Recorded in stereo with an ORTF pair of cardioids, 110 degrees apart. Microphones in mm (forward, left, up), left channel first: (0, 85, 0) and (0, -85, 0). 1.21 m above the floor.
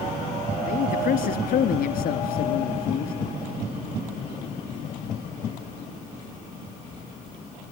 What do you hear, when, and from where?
0.7 s a man speaking: 65° left, 3 m